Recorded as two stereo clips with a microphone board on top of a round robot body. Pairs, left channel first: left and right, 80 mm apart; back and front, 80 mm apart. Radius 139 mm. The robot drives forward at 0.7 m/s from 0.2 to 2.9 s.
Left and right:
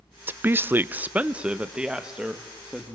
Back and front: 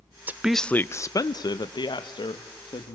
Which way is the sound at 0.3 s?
45° right.